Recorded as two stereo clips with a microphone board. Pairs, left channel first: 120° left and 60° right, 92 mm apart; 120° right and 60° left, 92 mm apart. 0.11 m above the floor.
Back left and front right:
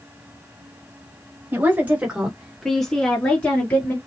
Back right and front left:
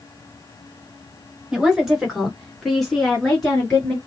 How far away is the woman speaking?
About 1.6 m.